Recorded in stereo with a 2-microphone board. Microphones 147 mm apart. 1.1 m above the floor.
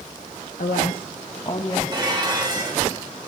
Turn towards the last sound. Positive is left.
turn(degrees=-30)  # may be behind; listen again after turning